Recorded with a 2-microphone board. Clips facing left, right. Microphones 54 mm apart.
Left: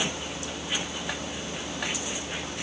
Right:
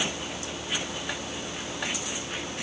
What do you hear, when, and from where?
Only background noise.